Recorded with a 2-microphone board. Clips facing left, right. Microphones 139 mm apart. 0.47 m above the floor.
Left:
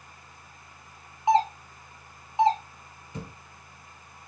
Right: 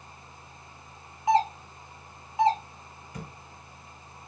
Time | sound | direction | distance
1.3 | a doorbell | 25° left (ahead or behind) | 1.2 m
3.1 | a thud | 25° left (ahead or behind) | 1.8 m